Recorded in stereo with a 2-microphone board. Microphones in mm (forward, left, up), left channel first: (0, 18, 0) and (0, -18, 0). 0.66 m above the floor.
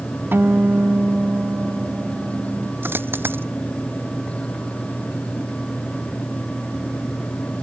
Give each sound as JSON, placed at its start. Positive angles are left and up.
{"t": 0.3, "sound": "a guitar", "side_deg": -75}
{"t": 2.8, "sound": "a dropped coin", "side_deg": -75}